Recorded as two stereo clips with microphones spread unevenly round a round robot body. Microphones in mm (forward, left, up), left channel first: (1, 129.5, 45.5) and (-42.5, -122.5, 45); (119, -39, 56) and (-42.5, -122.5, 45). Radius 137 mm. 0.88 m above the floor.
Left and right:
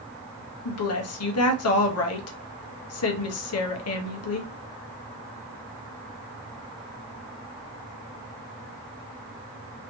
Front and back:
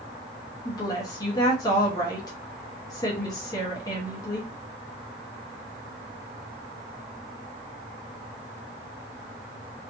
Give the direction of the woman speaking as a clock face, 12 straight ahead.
9 o'clock.